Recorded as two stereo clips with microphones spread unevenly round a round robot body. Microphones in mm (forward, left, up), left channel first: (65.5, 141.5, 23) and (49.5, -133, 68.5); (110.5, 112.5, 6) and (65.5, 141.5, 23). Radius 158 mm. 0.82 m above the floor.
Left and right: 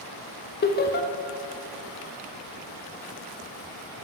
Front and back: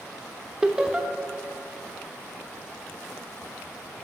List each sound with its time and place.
0.6 s laughter: 60° left, 0.8 m